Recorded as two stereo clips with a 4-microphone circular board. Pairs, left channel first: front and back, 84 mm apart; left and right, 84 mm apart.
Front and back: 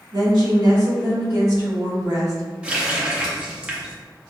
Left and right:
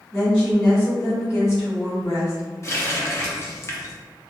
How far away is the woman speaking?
About 1.7 m.